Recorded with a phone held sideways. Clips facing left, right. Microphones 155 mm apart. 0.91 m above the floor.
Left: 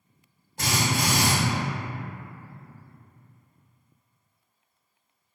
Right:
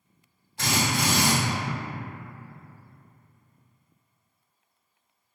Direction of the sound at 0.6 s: 45° left (ahead or behind).